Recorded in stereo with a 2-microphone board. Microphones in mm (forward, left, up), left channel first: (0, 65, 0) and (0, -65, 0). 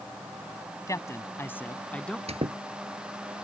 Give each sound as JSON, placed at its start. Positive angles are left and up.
{"t": 0.9, "sound": "a man speaking", "side_deg": 25}
{"t": 2.3, "sound": "a squeak", "side_deg": -50}